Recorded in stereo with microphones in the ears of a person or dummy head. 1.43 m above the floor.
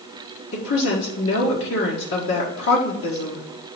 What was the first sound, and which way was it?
A woman speaking, 70° left (ahead or behind).